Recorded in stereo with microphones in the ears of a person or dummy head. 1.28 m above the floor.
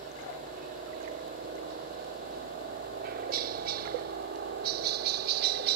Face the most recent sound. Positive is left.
turn(degrees=-50)  # may be behind; listen again after turning